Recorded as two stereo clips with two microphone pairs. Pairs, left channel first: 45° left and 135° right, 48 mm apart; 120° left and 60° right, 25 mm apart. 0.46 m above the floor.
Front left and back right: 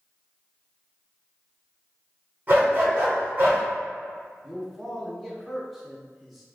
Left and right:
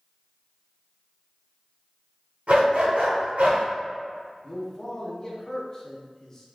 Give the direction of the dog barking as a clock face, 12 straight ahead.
3 o'clock.